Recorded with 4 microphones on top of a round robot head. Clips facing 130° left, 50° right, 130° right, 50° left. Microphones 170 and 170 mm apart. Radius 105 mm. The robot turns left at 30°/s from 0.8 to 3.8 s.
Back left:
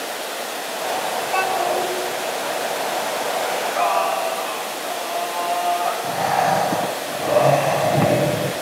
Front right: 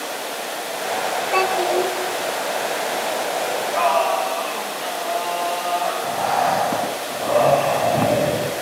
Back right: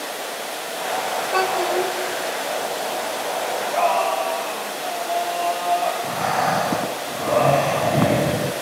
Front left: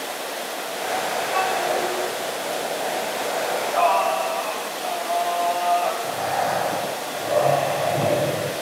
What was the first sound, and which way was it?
A child speaking, 85° right.